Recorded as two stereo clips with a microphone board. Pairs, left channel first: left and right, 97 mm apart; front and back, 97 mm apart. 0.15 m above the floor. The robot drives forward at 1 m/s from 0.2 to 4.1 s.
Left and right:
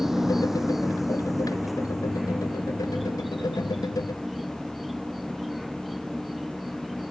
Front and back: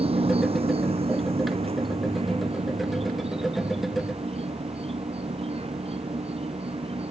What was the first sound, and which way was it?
An insect, 175° right.